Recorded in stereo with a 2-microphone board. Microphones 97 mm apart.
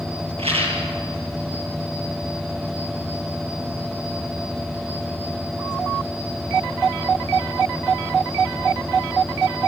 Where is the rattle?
75° right (ahead or behind), 5.5 m.